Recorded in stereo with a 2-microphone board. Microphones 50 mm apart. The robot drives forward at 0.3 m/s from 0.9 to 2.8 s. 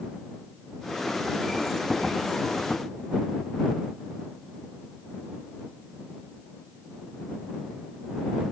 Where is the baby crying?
I don't hear a baby crying.